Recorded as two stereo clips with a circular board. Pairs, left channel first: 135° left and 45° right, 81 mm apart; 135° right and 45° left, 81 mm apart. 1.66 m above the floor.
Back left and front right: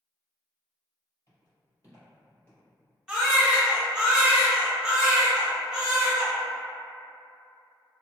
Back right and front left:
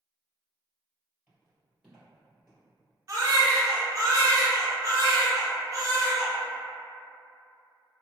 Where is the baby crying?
30° left, 0.6 m.